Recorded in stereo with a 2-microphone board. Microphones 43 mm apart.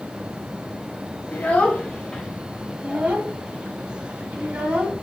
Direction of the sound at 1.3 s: 45° left (ahead or behind).